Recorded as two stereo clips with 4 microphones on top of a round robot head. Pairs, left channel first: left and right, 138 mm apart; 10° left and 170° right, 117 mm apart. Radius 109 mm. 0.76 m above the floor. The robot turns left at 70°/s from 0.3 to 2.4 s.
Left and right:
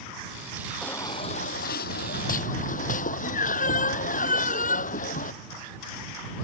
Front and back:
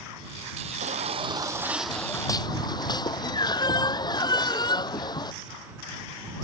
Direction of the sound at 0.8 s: 175° left.